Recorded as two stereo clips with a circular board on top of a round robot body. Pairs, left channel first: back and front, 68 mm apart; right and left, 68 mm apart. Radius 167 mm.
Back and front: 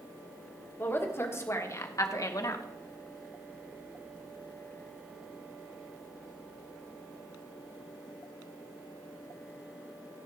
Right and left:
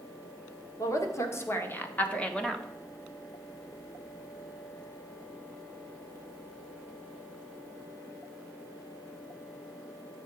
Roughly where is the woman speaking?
Behind right.